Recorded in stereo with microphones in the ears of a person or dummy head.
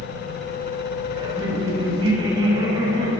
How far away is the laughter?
About 9 m.